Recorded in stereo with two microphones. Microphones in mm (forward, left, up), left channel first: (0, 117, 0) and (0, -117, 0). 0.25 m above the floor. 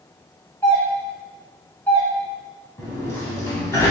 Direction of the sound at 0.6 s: 10° left (ahead or behind).